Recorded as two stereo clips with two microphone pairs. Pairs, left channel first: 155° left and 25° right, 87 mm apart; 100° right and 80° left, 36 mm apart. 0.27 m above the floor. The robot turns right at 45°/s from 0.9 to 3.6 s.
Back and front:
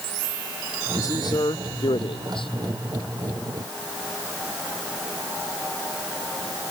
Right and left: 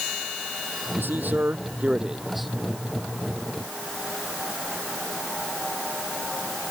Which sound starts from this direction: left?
A man speaking, at 1.0 s.